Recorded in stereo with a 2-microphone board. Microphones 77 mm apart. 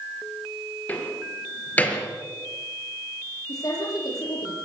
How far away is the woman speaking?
About 8.5 m.